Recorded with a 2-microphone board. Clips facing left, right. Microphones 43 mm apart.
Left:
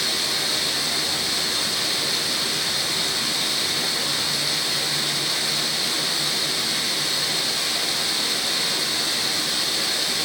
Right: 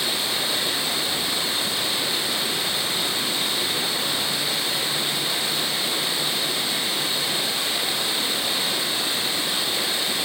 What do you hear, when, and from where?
0.0 s running water: 25° right (ahead or behind), 3.5 m